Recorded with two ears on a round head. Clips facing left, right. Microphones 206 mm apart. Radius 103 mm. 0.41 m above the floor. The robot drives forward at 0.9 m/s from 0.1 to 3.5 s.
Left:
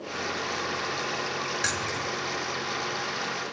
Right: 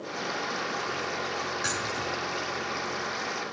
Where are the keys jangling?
70° left (ahead or behind), 4 m; by 2.1 s 75° left (ahead or behind), 4 m.